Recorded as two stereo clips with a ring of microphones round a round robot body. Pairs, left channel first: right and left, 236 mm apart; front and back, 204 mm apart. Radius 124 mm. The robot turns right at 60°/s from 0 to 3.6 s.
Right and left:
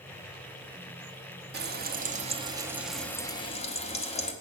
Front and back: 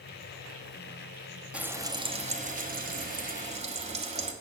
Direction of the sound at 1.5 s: 95° left.